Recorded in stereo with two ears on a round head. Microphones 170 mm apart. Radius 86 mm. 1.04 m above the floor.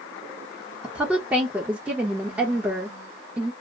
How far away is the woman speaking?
About 1.0 m.